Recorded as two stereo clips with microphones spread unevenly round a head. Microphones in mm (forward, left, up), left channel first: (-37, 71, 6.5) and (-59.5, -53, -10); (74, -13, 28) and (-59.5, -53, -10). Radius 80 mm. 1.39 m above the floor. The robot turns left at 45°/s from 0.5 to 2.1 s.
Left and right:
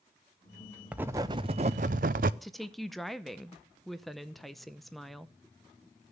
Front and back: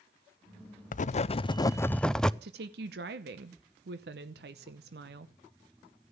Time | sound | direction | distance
0.9 | writing | 20° right | 0.5 m
2.4 | a woman speaking | 170° left | 0.7 m